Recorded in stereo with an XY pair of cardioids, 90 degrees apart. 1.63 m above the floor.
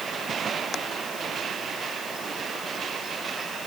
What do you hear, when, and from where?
Only background noise.